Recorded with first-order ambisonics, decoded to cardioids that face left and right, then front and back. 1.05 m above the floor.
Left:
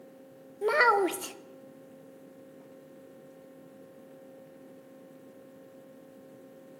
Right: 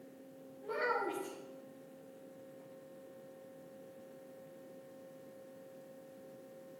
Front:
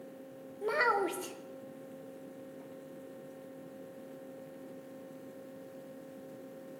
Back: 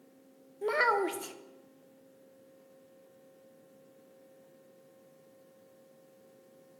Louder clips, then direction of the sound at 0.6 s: Left 12 dB, back 2 dB; 95° left.